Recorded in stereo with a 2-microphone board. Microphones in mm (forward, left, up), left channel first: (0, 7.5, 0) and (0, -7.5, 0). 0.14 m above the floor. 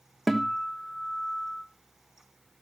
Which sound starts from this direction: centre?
A guitar, at 0.3 s.